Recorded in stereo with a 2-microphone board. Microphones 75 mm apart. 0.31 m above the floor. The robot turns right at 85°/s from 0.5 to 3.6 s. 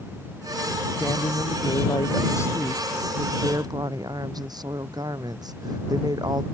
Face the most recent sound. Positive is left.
turn(degrees=-120)